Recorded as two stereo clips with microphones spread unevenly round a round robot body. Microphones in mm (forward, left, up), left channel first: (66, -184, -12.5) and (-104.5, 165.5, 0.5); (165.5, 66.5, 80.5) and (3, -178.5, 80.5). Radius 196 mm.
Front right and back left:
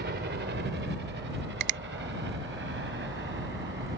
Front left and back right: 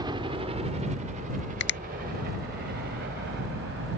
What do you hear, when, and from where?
0.0 s a helicopter: 165° left; by 4.0 s straight behind
1.6 s a finger snap: 95° left